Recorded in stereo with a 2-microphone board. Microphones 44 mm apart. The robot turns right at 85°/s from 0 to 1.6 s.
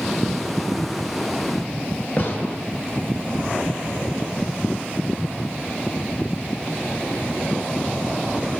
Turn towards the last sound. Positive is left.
turn(degrees=45)  # may be behind; listen again after turning